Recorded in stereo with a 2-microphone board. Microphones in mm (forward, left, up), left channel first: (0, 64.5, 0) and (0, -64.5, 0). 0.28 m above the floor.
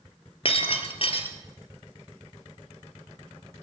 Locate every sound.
0.5 s breaking glass: 45° left (ahead or behind), 1.5 m